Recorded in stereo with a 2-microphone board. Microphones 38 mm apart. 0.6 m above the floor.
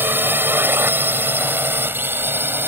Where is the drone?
65° right (ahead or behind); by 2.7 s 70° right (ahead or behind).